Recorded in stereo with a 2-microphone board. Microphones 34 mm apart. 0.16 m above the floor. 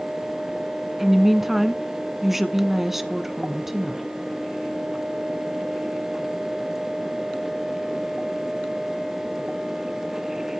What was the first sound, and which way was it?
A woman speaking, 10° right (ahead or behind).